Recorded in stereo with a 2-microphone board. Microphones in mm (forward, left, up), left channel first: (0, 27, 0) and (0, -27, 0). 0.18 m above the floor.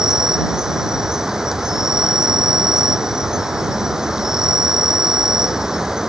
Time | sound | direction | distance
0.0 | an insect | 10° right (ahead or behind) | ?